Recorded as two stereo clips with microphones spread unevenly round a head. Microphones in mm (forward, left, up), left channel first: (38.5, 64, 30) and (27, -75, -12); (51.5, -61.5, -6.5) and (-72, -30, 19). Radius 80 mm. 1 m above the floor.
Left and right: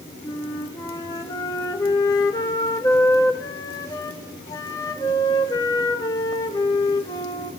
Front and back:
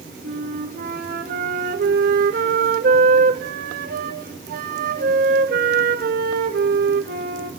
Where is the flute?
160° left, 2.0 m.